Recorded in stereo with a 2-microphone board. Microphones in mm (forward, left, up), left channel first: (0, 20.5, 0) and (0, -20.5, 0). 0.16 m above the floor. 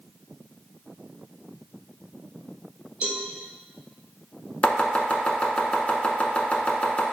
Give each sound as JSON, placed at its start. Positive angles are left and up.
{"t": 3.0, "sound": "a cowbell", "side_deg": -35, "distance_m": 1.4}
{"t": 4.6, "sound": "chopping", "side_deg": 30, "distance_m": 0.7}